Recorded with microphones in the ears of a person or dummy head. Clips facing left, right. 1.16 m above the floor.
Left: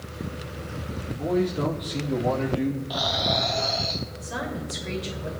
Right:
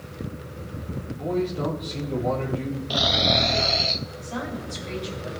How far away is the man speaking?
About 2.5 m.